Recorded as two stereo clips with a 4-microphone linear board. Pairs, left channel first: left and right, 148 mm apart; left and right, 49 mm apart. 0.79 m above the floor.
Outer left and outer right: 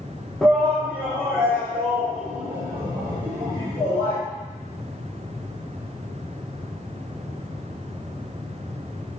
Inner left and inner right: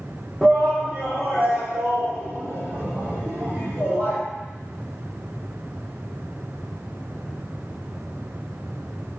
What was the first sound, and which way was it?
A shout, centre (ahead or behind).